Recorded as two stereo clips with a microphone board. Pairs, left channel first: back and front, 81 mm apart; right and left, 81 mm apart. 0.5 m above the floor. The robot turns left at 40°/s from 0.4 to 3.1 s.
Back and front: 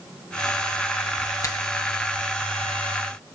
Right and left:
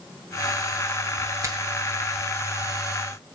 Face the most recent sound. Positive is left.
turn(degrees=70)